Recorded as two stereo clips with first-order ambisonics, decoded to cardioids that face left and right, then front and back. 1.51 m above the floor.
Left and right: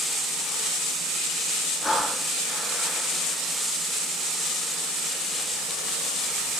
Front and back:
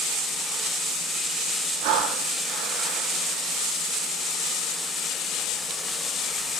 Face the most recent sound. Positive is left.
turn(degrees=170)